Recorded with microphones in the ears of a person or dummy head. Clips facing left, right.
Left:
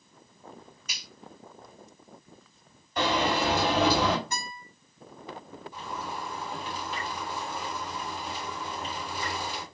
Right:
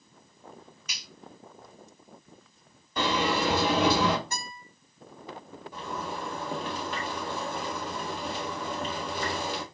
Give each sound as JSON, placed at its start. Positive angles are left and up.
{"t": 0.9, "sound": "a finger snap", "side_deg": -55, "distance_m": 1.3}
{"t": 3.0, "sound": "a sliding door", "side_deg": -70, "distance_m": 1.8}
{"t": 4.3, "sound": "a guitar", "side_deg": -35, "distance_m": 2.0}
{"t": 5.7, "sound": "a zipper", "side_deg": -45, "distance_m": 1.5}